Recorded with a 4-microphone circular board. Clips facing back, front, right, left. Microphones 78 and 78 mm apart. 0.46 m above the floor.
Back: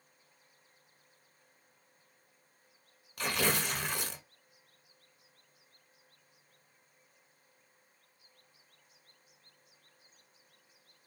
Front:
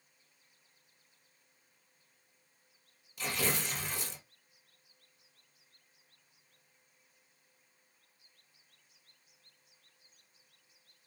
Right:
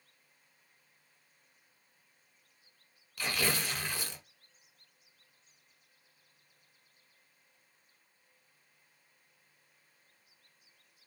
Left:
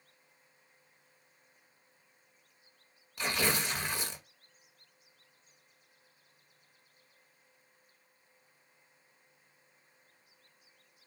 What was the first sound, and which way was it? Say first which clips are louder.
Tearing paper: back 3 dB, left 2 dB; 155° left.